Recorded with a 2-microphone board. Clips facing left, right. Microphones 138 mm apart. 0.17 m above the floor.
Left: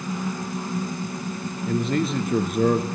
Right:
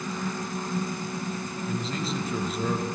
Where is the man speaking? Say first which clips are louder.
Left 9 dB; 60° left (ahead or behind), 2.5 m.